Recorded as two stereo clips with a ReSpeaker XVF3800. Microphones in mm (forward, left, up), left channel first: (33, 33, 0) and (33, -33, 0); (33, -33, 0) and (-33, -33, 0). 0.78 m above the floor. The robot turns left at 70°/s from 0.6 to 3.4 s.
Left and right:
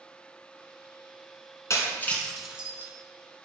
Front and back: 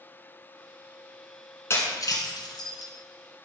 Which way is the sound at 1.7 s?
50° left.